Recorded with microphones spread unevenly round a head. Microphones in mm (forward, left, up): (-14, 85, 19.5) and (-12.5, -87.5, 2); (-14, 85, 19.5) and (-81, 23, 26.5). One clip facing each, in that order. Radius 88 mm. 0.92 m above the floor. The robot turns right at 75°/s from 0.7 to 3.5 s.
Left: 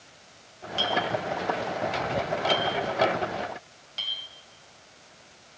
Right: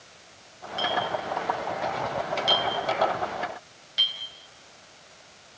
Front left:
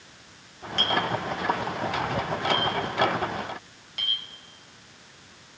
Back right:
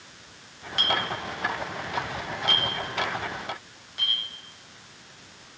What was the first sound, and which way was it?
A clink, 140° left.